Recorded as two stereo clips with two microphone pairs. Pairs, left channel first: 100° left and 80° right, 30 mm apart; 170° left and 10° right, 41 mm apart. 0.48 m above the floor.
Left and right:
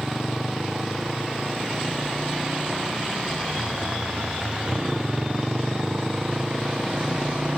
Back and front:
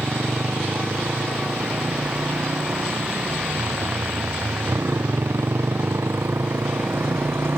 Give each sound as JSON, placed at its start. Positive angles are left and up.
{"t": 0.0, "sound": "a motorcycle", "azimuth_deg": -5}